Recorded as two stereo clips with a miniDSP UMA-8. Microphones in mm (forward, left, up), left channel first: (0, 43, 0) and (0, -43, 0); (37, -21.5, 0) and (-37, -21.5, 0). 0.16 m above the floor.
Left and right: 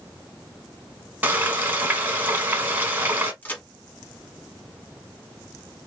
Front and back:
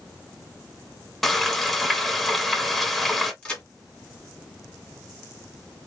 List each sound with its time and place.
1.2 s frying: 85° right, 0.9 m
3.4 s a crack: 55° left, 1.3 m